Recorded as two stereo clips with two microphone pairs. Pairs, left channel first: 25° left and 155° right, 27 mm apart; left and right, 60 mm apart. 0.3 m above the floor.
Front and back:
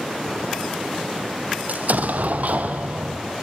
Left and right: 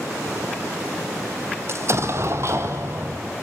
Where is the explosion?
135° right, 1.7 m.